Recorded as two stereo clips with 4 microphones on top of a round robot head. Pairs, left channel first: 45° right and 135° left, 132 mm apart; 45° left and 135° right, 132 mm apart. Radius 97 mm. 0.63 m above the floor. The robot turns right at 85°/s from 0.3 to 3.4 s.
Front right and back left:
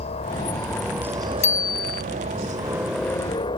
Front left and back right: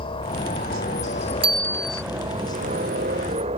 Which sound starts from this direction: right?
A bicycle bell, at 1.4 s.